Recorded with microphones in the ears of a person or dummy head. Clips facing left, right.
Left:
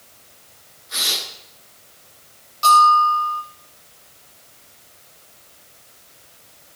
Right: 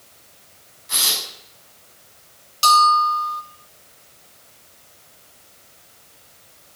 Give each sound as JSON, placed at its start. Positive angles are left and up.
{"t": 0.9, "sound": "tearing paper", "side_deg": -80, "distance_m": 8.0}
{"t": 2.6, "sound": "a bell", "side_deg": -45, "distance_m": 4.5}